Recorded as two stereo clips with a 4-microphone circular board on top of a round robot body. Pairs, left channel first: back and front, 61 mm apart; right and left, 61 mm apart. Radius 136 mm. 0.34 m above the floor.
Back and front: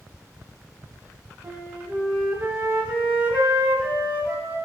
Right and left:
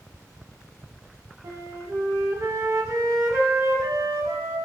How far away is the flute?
About 0.7 m.